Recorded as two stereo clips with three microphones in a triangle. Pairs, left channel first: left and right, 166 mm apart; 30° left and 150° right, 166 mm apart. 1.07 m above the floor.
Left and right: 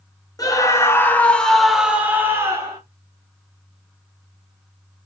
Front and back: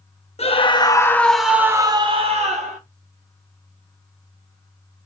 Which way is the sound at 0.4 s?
35° left.